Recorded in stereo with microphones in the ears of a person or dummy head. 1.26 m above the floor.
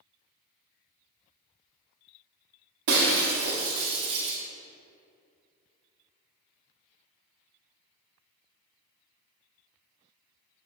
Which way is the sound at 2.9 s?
70° right (ahead or behind).